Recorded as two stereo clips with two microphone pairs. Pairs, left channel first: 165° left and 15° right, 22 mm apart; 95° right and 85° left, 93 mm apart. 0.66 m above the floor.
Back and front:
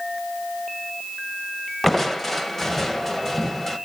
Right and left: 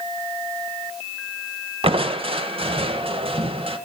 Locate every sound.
1.8 s crushing: 90° left, 1.1 m